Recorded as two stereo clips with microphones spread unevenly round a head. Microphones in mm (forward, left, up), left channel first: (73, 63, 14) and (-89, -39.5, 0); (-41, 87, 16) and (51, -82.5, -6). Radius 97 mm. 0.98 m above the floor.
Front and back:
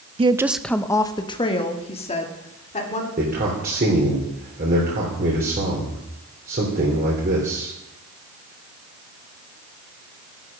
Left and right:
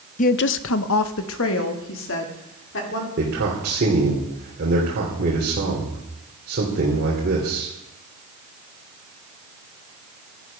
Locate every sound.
0.2 s a woman speaking: 165° left, 0.6 m; by 3.1 s 90° left, 3 m
3.2 s a man speaking: 100° right, 3 m